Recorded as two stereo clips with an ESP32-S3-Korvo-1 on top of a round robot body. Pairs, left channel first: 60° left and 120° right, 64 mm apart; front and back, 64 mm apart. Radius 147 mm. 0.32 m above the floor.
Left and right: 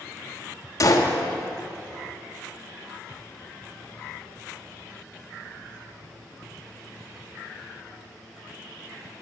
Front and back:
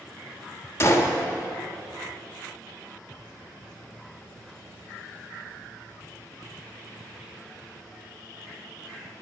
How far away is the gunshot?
About 1.3 m.